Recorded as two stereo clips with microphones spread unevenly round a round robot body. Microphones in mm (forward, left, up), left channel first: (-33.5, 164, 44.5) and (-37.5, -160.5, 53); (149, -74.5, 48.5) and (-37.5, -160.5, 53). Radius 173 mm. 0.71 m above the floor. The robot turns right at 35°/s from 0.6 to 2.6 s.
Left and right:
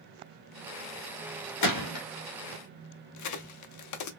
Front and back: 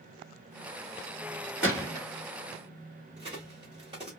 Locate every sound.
1.6 s a gunshot: 120° left, 1.2 m; by 2.0 s 135° left, 1.2 m
3.2 s a crack: 130° left, 0.5 m